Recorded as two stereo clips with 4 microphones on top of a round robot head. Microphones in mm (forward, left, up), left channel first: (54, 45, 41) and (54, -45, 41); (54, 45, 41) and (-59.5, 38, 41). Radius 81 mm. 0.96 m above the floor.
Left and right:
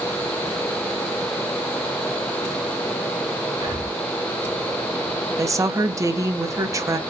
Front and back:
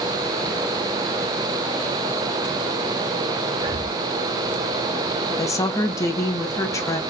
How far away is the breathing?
About 2 m.